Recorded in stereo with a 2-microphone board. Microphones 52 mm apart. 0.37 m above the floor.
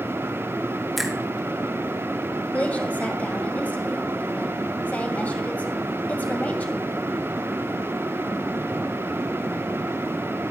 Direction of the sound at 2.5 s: 30° left (ahead or behind).